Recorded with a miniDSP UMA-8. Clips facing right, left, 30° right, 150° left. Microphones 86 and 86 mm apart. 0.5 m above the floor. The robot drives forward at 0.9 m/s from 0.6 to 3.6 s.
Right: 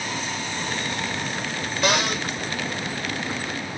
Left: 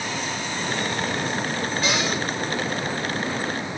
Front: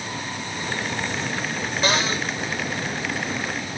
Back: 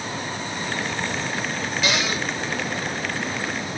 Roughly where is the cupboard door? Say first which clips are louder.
Right 4 dB, front 2 dB; right.